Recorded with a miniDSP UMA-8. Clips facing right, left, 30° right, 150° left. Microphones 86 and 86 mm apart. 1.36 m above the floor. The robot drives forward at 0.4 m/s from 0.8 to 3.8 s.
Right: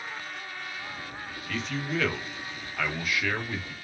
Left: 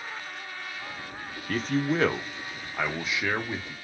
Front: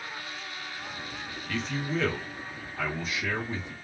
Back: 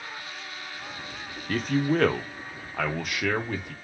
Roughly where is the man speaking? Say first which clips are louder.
Left 6 dB, back 7 dB; behind left.